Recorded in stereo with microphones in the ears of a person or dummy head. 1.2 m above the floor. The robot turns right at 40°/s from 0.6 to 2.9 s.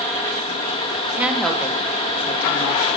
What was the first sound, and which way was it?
A woman speaking, 15° right (ahead or behind).